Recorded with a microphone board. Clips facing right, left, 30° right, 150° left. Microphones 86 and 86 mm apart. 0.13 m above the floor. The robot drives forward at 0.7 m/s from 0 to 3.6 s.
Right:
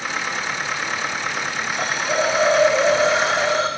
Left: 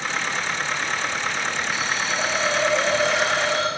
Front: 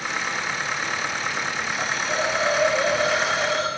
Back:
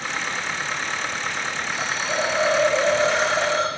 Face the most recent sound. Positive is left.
turn(degrees=-155)